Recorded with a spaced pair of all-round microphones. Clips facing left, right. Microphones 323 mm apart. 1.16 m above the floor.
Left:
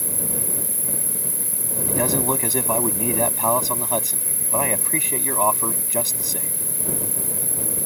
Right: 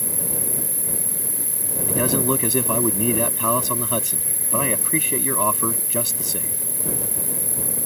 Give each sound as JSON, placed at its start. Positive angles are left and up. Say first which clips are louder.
{"t": 0.0, "sound": "an insect", "louder": "even", "side_deg": 10}
{"t": 1.9, "sound": "a man speaking", "louder": "right 2 dB", "side_deg": -20}